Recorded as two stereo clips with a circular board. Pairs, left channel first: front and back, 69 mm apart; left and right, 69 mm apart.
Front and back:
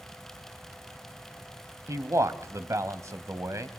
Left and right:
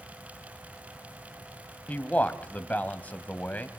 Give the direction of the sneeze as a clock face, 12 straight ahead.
I don't hear a sneeze.